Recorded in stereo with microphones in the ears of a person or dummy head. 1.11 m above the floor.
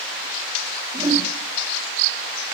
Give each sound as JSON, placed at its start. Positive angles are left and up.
{"t": 0.9, "sound": "a whoosh", "side_deg": -20, "distance_m": 1.6}